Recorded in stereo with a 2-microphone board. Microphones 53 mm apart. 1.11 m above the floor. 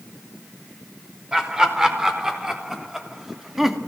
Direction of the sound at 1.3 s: 15° right (ahead or behind).